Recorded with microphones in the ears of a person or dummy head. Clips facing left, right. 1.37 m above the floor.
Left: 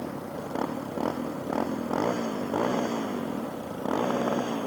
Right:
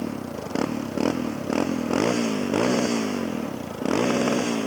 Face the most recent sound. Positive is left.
turn(degrees=-35)  # may be behind; listen again after turning